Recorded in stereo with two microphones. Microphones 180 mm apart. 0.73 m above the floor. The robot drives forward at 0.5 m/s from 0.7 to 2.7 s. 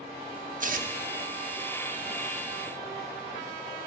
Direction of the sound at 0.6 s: 45° right (ahead or behind).